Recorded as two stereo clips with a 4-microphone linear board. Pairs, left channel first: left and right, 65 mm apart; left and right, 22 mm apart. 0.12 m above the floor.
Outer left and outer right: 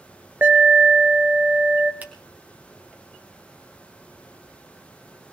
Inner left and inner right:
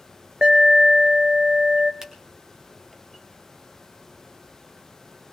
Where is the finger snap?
25° right (ahead or behind), 1.6 m.